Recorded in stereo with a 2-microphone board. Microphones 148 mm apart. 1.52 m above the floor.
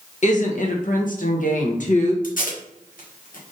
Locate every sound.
0.2 s a woman speaking: 60° left (ahead or behind), 1.3 m
2.2 s tape being pulled: 80° left, 1.5 m